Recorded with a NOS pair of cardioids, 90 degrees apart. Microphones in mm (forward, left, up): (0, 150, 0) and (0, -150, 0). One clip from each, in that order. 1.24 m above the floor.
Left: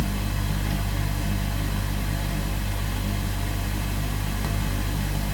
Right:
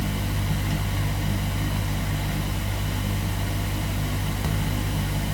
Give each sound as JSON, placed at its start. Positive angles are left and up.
{"t": 0.0, "sound": "a fan", "azimuth_deg": -10, "distance_m": 0.7}